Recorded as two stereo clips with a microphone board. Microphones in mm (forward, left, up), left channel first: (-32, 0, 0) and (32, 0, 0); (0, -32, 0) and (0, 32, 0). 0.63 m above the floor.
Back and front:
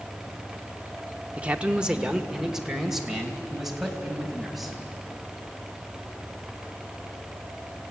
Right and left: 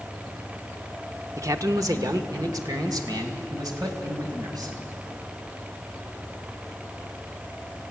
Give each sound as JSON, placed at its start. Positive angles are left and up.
{"t": 1.4, "sound": "a man speaking", "azimuth_deg": 65, "distance_m": 1.0}